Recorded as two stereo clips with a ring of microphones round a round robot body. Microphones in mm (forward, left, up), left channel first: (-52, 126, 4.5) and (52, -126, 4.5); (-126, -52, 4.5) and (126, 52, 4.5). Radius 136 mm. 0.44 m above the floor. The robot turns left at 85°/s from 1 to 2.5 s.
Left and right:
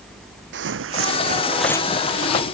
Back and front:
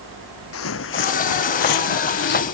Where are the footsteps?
115° right; by 2.5 s 135° left.